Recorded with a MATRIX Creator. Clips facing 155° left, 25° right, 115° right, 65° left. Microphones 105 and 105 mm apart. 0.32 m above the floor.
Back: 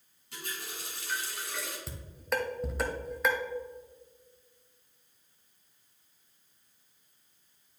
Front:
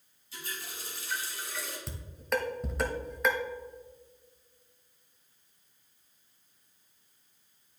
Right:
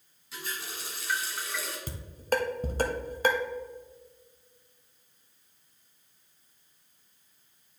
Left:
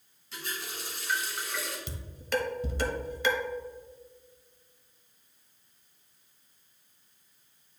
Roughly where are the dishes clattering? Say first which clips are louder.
Front 2 dB, right 4 dB; behind right.